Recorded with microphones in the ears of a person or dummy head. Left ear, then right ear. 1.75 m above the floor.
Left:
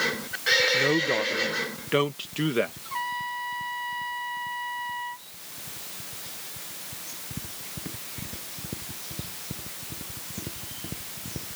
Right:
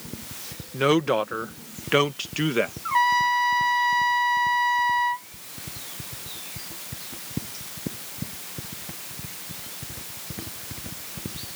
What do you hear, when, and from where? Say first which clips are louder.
0.7 s a woman speaking: right 2 dB; 50° right (ahead or behind); by 2.7 s 5° right (ahead or behind)
2.9 s a trumpet: right 11 dB; 55° right (ahead or behind)